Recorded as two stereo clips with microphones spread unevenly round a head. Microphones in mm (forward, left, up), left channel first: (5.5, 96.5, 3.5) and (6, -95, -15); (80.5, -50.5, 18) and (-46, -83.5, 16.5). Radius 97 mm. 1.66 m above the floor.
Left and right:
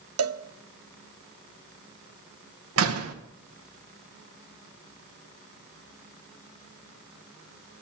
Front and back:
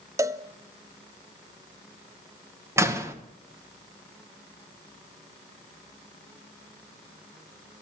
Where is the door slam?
95° right, 1.3 m.